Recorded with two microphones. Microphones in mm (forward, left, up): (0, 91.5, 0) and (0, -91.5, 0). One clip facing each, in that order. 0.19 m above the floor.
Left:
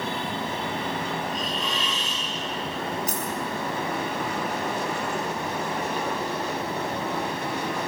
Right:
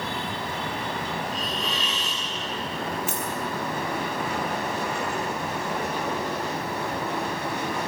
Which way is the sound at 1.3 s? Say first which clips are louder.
Left 1 dB; 35° right (ahead or behind).